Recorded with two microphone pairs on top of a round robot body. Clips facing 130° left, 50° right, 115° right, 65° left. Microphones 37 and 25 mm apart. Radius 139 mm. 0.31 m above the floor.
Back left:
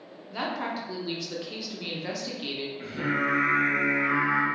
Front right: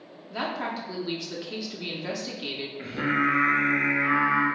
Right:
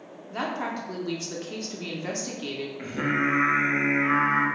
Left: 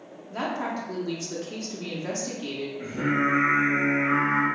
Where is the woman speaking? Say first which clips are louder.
Front right 1 dB, left 1 dB; 120° right, 1.0 m.